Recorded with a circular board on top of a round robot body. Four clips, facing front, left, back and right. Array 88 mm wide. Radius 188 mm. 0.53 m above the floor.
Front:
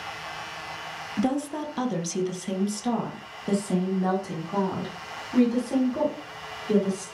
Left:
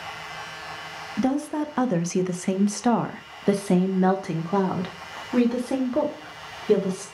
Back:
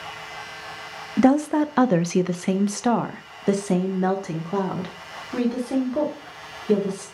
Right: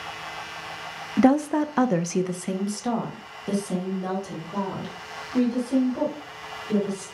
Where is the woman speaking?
140° right, 1.1 m; by 7.0 s 110° left, 3 m.